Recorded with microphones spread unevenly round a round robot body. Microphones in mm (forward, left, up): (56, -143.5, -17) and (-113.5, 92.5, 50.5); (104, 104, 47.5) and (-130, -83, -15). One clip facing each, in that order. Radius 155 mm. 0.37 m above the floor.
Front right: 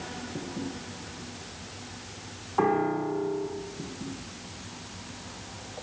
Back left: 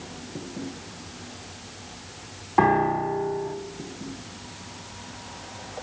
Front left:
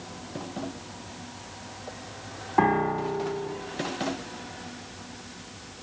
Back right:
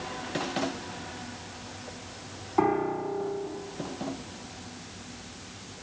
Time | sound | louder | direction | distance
2.6 | a piano | back left 3 dB, front left 1 dB | 95° left | 1.7 m